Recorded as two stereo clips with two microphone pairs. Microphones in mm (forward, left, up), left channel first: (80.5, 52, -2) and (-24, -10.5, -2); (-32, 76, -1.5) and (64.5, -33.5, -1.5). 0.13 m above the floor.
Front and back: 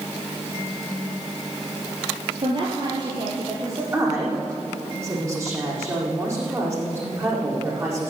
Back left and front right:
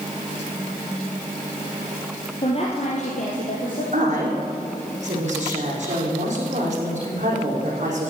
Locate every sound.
2.4 s a woman speaking: 175° left, 2.5 m; by 3.8 s 150° left, 3.5 m
3.9 s a woman speaking: 85° right, 7 m